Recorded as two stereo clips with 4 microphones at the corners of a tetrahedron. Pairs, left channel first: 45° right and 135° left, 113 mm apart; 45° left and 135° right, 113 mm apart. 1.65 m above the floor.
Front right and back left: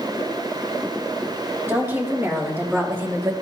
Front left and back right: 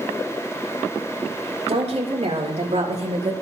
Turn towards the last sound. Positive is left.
turn(degrees=-155)